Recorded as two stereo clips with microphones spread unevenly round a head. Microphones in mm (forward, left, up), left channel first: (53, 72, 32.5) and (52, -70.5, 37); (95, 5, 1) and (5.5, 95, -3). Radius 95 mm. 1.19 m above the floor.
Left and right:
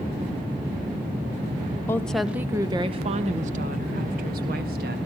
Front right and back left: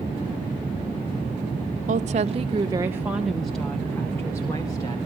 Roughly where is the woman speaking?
Behind.